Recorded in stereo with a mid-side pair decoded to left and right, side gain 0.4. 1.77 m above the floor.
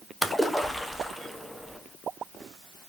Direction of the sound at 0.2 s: 5° left.